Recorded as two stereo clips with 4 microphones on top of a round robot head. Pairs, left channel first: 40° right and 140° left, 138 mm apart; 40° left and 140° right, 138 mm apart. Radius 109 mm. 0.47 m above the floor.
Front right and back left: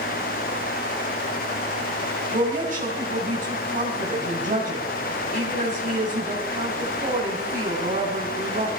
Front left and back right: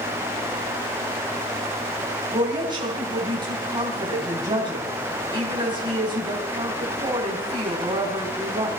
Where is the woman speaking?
170° left, 3 m.